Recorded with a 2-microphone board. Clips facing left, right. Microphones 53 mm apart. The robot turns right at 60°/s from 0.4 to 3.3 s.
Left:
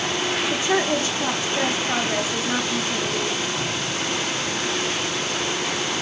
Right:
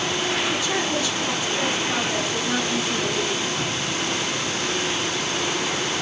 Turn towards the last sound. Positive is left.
turn(degrees=-140)